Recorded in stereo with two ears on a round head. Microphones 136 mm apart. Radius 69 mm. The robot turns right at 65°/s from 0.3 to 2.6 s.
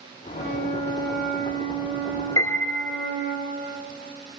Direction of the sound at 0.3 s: 100° left.